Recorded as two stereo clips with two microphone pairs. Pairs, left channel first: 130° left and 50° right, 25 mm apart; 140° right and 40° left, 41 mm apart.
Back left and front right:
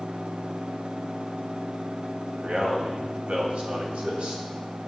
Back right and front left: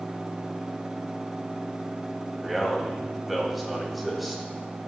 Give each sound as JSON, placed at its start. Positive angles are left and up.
{"t": 2.3, "sound": "a man speaking", "azimuth_deg": -45, "distance_m": 2.0}